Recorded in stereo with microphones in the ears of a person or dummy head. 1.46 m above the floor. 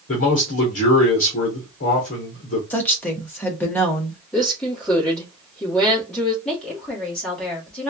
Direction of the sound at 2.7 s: 10° left (ahead or behind).